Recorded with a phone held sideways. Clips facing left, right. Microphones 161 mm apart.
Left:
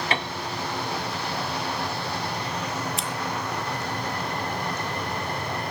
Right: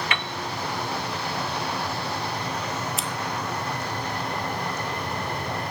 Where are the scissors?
Centre (ahead or behind), 1.2 m.